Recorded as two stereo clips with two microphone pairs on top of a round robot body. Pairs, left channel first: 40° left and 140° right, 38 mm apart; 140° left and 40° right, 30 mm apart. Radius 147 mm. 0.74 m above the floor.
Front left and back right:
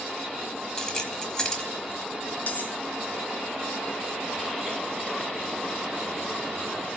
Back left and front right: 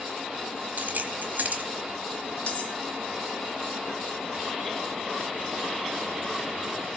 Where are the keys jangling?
30° right, 1.2 m.